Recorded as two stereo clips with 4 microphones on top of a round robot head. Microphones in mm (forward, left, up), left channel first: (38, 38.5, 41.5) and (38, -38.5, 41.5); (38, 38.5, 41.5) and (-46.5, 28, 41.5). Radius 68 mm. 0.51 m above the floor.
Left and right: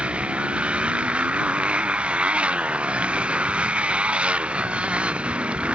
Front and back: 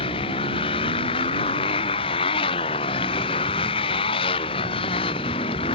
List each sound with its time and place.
0.0 s a motorcycle: 15° right